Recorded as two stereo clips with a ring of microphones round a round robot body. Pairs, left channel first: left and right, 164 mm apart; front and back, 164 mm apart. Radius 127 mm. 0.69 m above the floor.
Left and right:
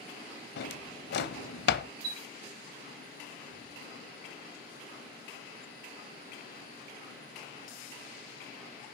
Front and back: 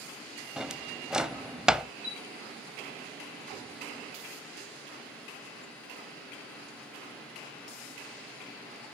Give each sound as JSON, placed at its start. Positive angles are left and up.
{"t": 0.6, "sound": "a drawer", "azimuth_deg": 95, "distance_m": 0.8}
{"t": 2.0, "sound": "a chime", "azimuth_deg": -100, "distance_m": 3.0}